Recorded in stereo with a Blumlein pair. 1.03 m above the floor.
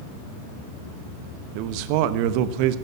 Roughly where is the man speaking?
Ahead right.